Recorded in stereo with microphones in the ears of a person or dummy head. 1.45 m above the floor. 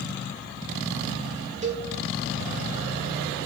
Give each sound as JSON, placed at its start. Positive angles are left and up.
{"t": 1.6, "sound": "a cowbell", "side_deg": -30, "distance_m": 1.2}